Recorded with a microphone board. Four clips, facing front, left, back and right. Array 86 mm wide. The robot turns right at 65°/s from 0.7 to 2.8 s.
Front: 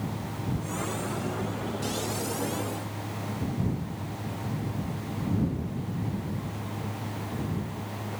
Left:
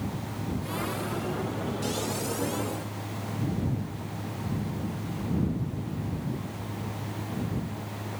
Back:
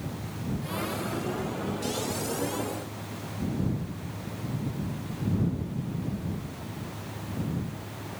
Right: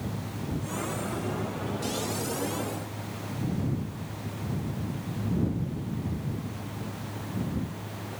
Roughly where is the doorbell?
I don't hear a doorbell.